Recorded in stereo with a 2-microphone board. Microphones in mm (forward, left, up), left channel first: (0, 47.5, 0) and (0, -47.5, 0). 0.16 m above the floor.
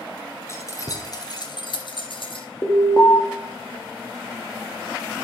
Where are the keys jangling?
30° left (ahead or behind), 1.5 m; by 2.5 s 65° left (ahead or behind), 1.9 m.